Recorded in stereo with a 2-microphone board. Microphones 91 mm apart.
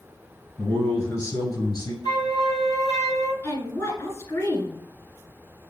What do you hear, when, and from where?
0.6 s a man speaking: 10° left (ahead or behind), 1.1 m; by 1.9 s 35° left (ahead or behind), 1.3 m
2.0 s a flute: 45° left (ahead or behind), 1.5 m
3.4 s a woman speaking: 30° left (ahead or behind), 1.6 m